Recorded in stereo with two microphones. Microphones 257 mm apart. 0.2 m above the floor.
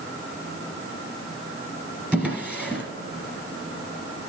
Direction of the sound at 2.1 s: 5° right (ahead or behind).